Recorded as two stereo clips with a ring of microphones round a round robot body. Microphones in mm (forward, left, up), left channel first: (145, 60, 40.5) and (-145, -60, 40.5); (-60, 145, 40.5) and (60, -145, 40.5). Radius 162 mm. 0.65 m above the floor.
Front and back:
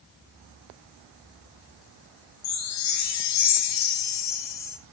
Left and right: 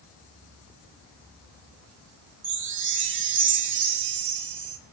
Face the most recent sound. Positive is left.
turn(degrees=-15)